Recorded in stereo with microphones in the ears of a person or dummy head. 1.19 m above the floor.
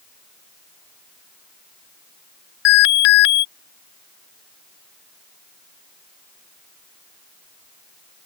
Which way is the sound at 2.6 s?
75° left (ahead or behind).